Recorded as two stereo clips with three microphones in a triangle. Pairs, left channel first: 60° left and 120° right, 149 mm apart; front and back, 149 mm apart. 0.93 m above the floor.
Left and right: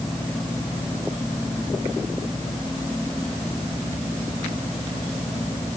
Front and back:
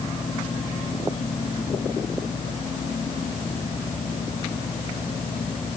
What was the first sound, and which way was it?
Only background noise.